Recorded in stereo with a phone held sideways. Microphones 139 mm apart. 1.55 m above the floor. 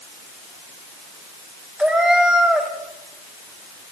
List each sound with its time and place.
1.8 s a cat meowing: 5° right (ahead or behind), 3 m